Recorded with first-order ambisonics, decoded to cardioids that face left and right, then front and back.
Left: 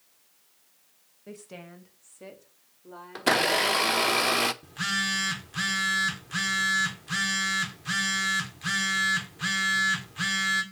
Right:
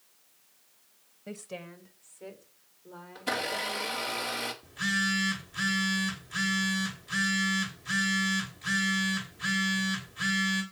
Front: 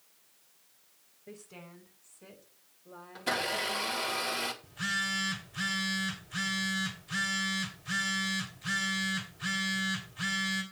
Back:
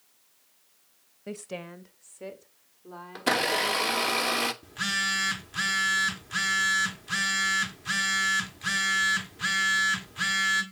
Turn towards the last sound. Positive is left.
turn(degrees=145)